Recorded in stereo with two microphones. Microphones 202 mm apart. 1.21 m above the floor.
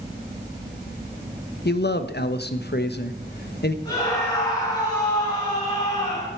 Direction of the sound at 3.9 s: 20° left (ahead or behind).